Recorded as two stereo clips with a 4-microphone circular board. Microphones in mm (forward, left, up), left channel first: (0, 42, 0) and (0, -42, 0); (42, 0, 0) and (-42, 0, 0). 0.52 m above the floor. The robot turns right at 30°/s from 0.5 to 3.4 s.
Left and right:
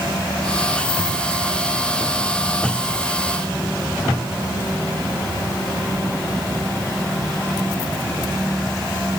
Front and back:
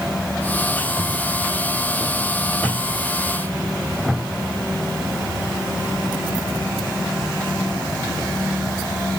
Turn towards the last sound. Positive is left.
No sound to turn to.